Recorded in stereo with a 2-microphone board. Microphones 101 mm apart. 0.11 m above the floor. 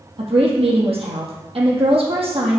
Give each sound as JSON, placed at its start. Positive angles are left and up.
{"t": 0.2, "sound": "a woman speaking", "side_deg": -65, "distance_m": 3.0}